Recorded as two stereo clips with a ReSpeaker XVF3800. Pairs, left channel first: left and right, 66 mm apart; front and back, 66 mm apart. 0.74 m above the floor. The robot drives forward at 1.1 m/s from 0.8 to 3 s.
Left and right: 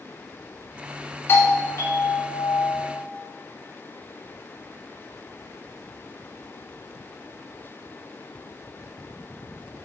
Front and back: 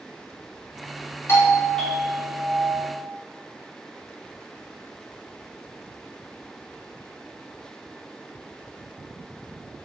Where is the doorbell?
45° left, 1.3 m; by 3.0 s 145° left, 1.5 m.